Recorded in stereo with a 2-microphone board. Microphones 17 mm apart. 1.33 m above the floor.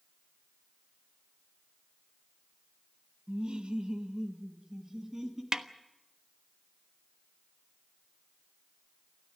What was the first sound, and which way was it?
Laughter, 70° right (ahead or behind).